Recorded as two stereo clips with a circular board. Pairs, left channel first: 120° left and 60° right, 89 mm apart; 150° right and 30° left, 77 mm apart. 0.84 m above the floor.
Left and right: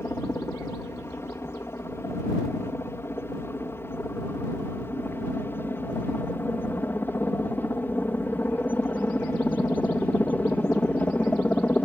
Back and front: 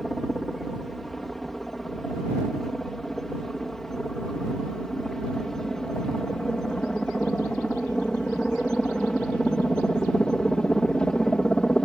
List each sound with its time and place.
0.0 s a helicopter: 125° left; by 11.9 s 150° left